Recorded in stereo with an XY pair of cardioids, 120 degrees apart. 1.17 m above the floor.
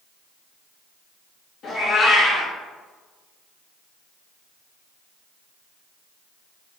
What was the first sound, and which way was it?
A cat meowing, 60° left.